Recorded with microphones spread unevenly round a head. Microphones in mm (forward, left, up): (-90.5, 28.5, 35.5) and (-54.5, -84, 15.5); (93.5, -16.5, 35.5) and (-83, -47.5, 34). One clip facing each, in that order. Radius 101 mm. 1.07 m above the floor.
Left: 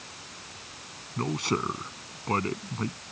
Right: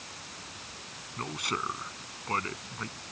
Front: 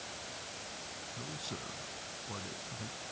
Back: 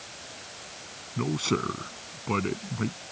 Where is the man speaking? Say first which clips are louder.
Left 7 dB, back 19 dB; 160° left.